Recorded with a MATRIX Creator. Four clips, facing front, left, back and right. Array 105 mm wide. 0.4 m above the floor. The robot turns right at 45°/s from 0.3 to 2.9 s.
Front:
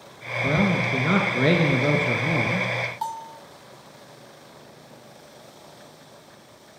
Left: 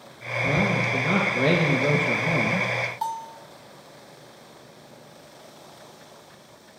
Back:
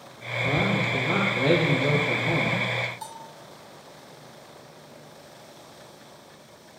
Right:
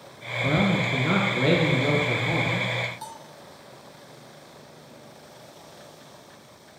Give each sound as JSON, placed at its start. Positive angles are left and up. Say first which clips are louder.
{"t": 0.4, "sound": "a man speaking", "louder": "right 1 dB, front 3 dB", "azimuth_deg": -50, "distance_m": 5.0}
{"t": 3.0, "sound": "a bell", "louder": "left 10 dB, front 9 dB", "azimuth_deg": 50, "distance_m": 1.8}